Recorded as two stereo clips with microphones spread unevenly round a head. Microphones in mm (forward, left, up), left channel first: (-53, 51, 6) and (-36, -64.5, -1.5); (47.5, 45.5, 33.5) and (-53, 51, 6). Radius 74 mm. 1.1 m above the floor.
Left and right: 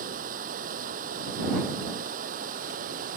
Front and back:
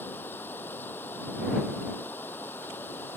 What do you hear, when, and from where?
0.0 s running water: 80° right